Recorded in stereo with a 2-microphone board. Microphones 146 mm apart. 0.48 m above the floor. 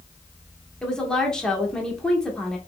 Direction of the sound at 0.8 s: 5° left (ahead or behind).